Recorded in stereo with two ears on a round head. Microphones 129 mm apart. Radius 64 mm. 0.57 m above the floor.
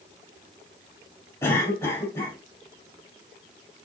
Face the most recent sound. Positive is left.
turn(degrees=20)  # may be behind; listen again after turning